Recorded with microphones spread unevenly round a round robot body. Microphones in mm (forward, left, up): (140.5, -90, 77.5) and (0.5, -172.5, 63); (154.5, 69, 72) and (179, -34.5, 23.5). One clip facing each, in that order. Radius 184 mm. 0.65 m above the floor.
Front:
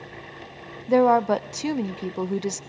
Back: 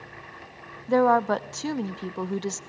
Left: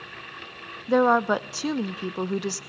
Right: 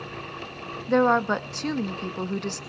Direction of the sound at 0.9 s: 35° right.